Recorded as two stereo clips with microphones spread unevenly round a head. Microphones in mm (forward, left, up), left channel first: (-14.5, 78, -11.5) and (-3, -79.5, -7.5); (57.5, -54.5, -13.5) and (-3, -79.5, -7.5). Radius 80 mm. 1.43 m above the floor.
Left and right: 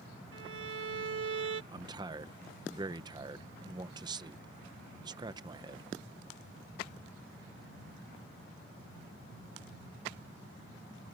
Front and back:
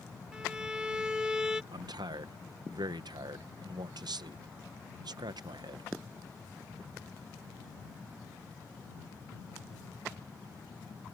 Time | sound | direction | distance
0.3 | a violin | 80° right | ?
1.7 | a man speaking | 150° right | ?